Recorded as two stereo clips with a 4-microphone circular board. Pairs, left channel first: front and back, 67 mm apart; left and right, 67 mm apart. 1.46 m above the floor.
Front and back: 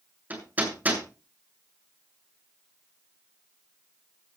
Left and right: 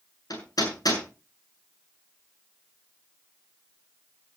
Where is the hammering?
115° left, 7 m.